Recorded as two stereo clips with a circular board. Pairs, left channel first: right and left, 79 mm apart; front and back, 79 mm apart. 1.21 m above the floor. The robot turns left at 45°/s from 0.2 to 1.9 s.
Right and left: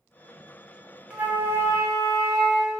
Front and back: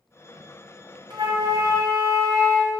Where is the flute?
165° left, 0.7 m; by 2.8 s 130° left, 0.7 m.